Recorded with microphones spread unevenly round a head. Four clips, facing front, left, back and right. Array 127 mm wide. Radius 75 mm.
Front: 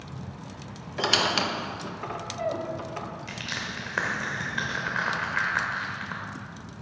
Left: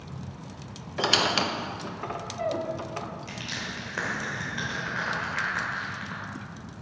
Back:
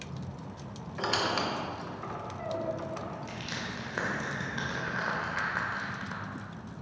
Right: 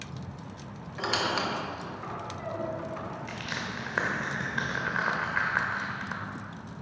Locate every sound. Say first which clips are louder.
1.0 s a squeak: left 4 dB, front 4 dB; 70° left, 0.7 m
3.3 s crushing: right 1 dB, front 2 dB; 165° left, 1.0 m